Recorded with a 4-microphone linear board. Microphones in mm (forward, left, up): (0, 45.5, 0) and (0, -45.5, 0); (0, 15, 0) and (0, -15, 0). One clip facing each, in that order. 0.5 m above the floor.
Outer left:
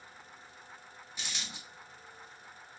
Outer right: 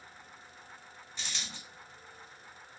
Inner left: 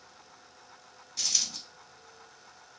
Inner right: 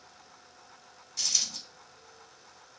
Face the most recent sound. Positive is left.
turn(degrees=10)  # may be behind; listen again after turning